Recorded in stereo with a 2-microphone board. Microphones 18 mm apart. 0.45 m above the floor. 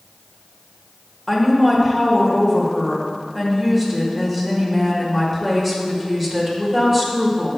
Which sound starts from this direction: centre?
A woman speaking, at 1.3 s.